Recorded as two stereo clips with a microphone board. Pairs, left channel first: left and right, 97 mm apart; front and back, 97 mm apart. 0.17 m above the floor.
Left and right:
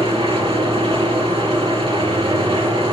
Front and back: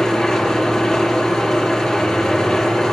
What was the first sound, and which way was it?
An engine running, 85° right.